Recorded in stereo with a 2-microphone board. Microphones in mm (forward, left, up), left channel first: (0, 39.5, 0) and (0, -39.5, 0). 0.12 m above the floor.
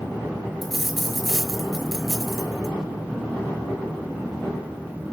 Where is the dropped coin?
Centre (ahead or behind), 0.9 m.